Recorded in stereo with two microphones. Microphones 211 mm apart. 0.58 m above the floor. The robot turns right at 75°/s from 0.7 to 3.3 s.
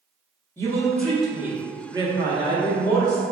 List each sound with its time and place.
0.6 s a woman speaking: 10° left (ahead or behind), 0.7 m; by 3.2 s 10° right (ahead or behind), 0.7 m